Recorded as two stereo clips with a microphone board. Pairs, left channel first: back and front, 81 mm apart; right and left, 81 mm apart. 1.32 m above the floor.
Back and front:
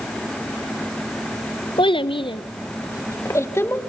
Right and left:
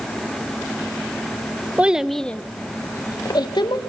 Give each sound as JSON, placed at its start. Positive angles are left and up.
{"t": 1.8, "sound": "a child speaking", "azimuth_deg": 165, "distance_m": 0.8}